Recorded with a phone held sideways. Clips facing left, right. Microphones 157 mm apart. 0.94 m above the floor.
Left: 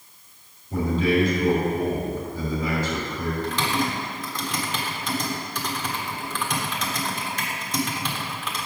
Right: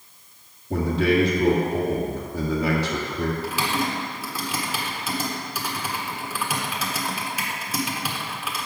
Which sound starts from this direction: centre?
Typing on a keyboard, at 3.4 s.